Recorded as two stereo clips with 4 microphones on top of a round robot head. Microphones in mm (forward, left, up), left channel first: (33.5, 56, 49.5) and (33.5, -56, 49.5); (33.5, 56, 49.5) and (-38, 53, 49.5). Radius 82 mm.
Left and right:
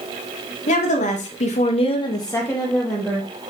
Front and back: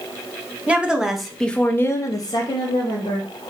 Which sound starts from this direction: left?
A woman speaking, at 0.7 s.